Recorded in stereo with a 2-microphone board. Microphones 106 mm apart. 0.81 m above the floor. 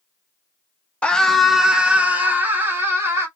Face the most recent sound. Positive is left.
turn(degrees=-25)  # may be behind; listen again after turning